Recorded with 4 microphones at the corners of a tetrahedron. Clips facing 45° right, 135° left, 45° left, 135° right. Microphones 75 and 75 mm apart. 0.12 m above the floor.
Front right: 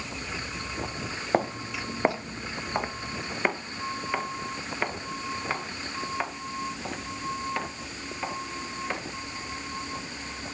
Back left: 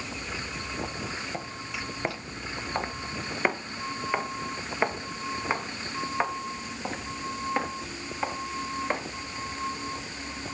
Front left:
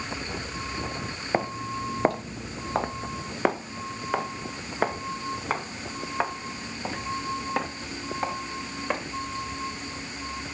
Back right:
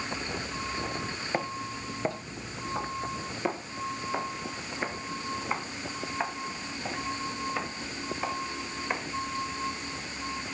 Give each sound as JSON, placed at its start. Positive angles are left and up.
{"t": 1.3, "sound": "footsteps", "azimuth_deg": -20, "distance_m": 0.6}